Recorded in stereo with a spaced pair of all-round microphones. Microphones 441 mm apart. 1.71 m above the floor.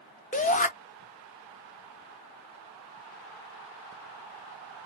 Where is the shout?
20° left (ahead or behind), 0.7 m.